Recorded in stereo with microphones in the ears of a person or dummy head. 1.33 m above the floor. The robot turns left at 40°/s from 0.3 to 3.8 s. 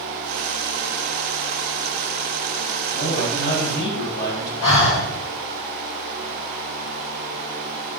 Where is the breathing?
70° left (ahead or behind), 1.7 m.